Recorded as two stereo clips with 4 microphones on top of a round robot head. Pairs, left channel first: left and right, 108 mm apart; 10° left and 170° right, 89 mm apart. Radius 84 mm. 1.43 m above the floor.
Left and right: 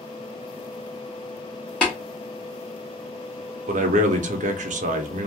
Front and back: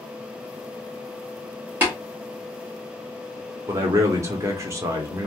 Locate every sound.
1.8 s tapping: 160° left, 0.9 m
3.7 s a man speaking: 105° right, 0.6 m